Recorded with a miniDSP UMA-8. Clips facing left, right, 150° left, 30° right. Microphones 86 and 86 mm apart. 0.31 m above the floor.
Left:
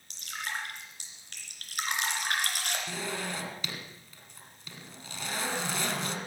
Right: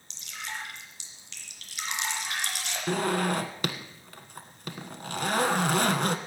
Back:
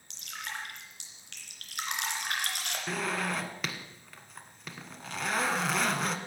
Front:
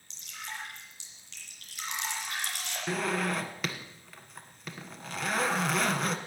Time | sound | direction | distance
0.1 | dripping | 125° left | 3 m
2.9 | a zipper | 120° right | 1.3 m